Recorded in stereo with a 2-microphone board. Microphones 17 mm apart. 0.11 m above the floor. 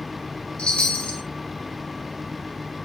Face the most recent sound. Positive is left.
turn(degrees=65)  # may be behind; listen again after turning